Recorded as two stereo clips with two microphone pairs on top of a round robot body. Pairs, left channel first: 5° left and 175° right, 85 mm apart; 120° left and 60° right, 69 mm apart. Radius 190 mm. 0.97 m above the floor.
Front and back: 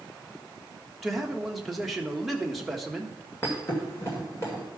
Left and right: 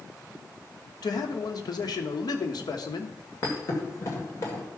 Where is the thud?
70° left, 1.8 m.